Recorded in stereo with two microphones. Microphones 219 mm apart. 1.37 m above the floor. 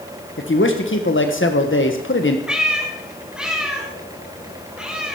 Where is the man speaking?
65° left (ahead or behind), 1.5 m.